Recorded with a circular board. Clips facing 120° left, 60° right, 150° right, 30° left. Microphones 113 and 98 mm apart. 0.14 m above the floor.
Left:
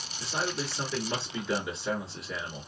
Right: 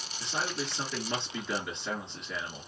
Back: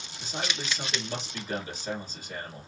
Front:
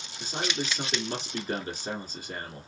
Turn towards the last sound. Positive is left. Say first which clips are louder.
# left 2 dB, front 3 dB
turn(degrees=35)